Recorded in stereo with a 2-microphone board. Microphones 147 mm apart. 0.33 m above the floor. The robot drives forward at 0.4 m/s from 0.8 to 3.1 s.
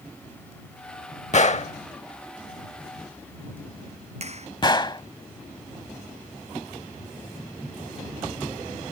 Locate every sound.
1.3 s a gunshot: 55° left (ahead or behind); by 5.0 s 30° left (ahead or behind)
4.2 s a clap: 50° right (ahead or behind)